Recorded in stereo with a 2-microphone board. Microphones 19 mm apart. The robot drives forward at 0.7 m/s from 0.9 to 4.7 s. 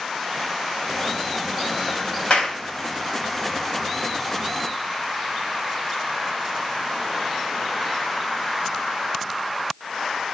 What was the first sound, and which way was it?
A clap, 60° left (ahead or behind).